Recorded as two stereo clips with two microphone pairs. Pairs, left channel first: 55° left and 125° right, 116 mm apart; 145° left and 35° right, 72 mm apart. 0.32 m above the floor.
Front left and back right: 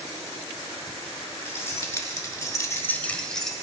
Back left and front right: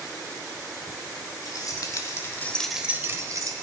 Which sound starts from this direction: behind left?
Keys jangling, at 1.4 s.